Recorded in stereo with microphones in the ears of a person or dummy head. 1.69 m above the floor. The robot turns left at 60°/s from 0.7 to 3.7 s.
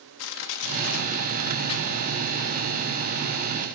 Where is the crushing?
85° left, 3 m; by 2.7 s 25° right (ahead or behind), 3 m.